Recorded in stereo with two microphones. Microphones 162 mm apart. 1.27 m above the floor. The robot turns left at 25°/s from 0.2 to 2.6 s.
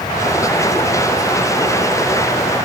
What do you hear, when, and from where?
Only background noise.